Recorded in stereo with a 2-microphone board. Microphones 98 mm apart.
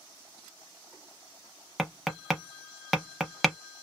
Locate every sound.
1.8 s tapping: centre (ahead or behind), 0.6 m